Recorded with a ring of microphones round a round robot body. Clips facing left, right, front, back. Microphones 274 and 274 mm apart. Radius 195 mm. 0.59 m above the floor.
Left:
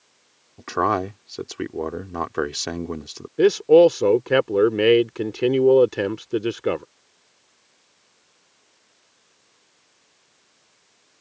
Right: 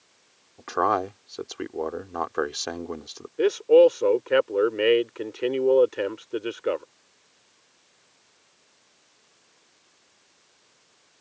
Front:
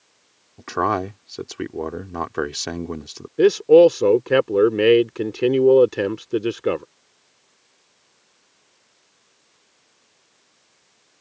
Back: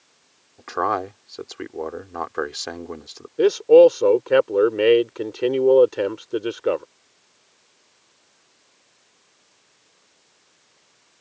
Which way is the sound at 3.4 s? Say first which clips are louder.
Left 3 dB, even; 55° left.